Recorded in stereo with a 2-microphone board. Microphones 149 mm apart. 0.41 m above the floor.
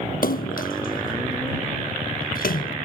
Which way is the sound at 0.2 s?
75° left (ahead or behind).